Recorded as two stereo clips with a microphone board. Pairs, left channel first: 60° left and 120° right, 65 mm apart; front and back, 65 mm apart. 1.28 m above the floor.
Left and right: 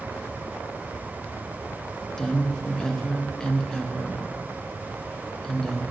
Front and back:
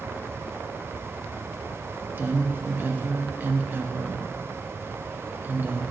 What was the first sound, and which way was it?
A woman speaking, 135° left.